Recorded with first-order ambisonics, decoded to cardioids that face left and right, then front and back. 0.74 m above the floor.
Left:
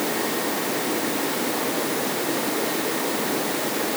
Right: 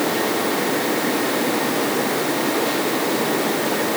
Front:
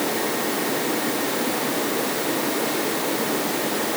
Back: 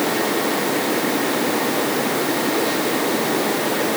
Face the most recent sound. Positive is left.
No sound to turn to.